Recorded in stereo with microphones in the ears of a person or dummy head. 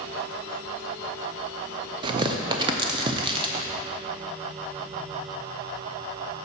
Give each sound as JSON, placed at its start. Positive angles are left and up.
{"t": 2.0, "sound": "tearing paper", "side_deg": -30, "distance_m": 0.5}